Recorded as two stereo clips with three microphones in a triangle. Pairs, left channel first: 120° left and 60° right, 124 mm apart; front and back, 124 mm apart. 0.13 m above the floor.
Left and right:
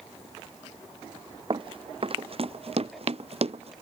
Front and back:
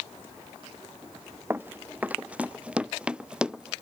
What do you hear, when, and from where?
1.5 s running footsteps: 110° right; by 3.7 s 95° right